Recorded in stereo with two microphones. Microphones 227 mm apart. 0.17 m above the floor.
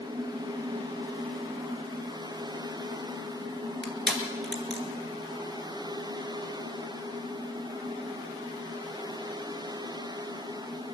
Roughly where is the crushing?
Right.